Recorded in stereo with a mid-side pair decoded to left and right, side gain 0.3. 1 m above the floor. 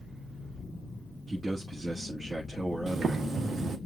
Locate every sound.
1.3 s a man speaking: 35° right, 1.4 m
2.9 s boiling: 65° right, 1.0 m